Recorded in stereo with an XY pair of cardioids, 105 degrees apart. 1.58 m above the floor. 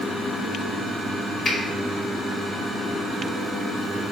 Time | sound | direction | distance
1.4 | a finger snap | 45° left | 1.7 m